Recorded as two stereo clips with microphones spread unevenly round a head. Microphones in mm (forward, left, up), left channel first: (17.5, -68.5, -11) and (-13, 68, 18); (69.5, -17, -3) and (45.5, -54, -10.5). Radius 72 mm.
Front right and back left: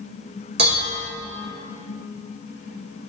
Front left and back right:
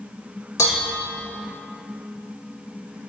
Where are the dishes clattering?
85° left, 1.9 m.